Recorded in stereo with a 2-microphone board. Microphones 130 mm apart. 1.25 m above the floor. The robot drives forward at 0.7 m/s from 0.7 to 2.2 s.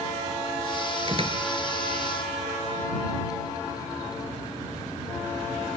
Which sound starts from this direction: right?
A door slam, at 1.1 s.